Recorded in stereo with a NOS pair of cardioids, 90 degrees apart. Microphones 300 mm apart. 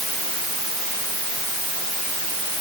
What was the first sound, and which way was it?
Only background noise.